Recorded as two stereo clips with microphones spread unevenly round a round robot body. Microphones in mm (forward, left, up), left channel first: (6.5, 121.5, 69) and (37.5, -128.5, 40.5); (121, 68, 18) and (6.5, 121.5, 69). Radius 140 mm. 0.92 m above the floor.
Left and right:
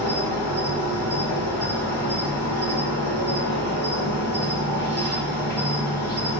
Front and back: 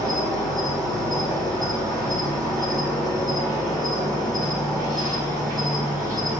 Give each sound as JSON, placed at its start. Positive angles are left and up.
{"t": 0.0, "sound": "an insect", "azimuth_deg": -125, "distance_m": 1.9}